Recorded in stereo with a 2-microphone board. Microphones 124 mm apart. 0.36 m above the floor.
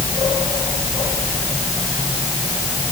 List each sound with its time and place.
Only background noise.